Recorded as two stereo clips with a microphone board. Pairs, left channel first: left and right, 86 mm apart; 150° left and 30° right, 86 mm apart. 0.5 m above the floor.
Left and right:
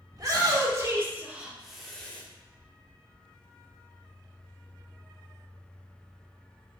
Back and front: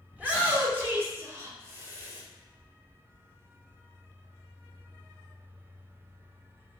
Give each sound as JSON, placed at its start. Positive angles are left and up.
{"t": 0.1, "sound": "a shout", "azimuth_deg": -95, "distance_m": 1.0}